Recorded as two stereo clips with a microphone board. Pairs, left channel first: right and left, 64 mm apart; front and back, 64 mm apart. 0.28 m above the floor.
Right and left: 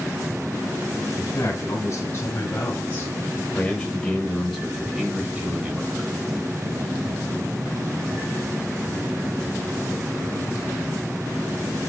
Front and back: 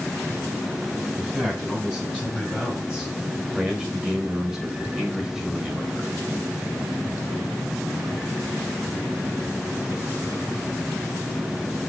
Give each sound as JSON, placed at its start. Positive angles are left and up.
{"t": 1.2, "sound": "a man speaking", "azimuth_deg": -100, "distance_m": 2.0}